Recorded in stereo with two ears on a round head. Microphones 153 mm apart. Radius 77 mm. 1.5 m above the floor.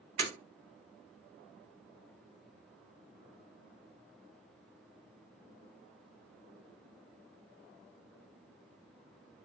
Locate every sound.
0.2 s breaking glass: 45° right (ahead or behind), 1.9 m